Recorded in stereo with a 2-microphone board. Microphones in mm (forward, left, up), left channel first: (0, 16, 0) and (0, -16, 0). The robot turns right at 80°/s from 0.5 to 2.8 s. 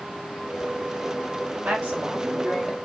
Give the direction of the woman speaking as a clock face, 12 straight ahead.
3 o'clock.